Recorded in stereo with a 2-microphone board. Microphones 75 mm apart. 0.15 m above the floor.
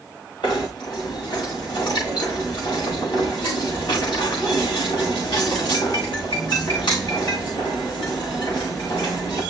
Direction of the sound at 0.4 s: 85° left.